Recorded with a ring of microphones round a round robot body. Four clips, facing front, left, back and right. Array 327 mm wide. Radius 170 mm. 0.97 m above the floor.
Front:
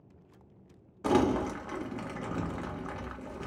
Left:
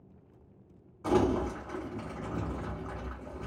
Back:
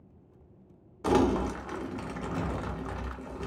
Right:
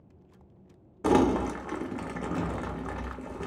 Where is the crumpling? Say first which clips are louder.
Right 4 dB, back 1 dB; 80° right, 0.9 m.